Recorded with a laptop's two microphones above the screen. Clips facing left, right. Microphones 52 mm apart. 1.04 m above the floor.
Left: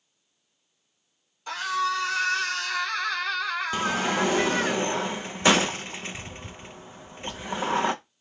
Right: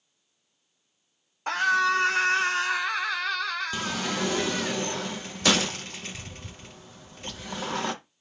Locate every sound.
1.5 s a scream: 50° right (ahead or behind), 1.3 m; by 4.7 s 40° left (ahead or behind), 1.2 m
3.7 s a sliding door: 25° left (ahead or behind), 0.6 m